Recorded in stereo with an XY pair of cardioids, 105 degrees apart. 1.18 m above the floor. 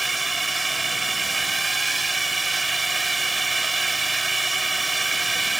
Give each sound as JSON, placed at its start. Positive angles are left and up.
{"t": 0.0, "sound": "a drone", "azimuth_deg": -15}